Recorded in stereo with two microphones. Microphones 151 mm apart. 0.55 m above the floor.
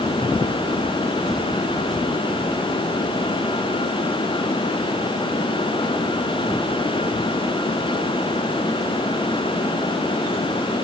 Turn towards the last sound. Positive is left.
No sound to turn to.